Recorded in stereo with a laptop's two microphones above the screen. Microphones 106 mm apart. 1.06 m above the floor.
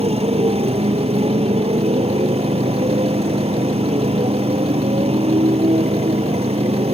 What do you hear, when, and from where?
0.0 s a motorcycle: 70° right (ahead or behind)